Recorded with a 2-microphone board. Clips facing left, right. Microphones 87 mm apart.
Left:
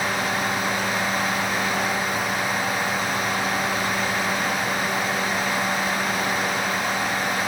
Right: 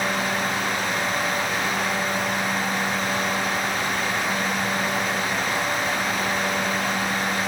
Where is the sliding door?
I don't hear a sliding door.